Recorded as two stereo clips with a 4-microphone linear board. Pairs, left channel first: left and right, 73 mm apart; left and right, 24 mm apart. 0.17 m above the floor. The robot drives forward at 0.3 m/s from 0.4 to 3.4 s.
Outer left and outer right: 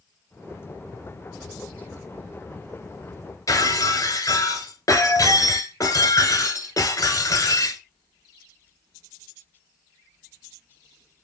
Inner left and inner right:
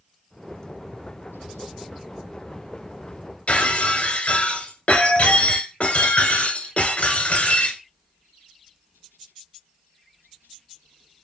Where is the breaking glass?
50° left (ahead or behind), 1.2 m.